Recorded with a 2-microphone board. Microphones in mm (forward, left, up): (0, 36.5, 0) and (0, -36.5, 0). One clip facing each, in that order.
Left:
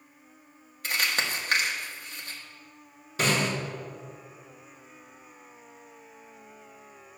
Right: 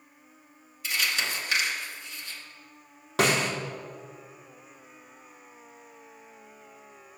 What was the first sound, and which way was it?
Crumpling, 45° left (ahead or behind).